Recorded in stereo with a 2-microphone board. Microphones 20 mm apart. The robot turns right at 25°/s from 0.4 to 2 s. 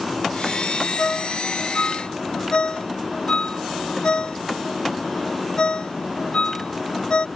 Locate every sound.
1.0 s a ringtone: 45° left (ahead or behind); by 7.3 s 60° left (ahead or behind)